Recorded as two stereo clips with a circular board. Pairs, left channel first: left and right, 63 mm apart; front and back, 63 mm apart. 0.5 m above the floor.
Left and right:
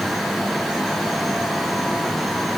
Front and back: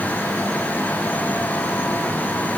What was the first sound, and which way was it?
Only background noise.